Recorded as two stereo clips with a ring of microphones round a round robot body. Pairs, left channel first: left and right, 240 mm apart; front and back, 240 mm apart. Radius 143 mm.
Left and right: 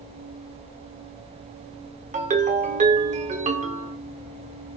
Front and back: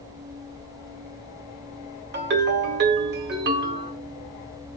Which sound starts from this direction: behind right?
A ringtone, at 2.1 s.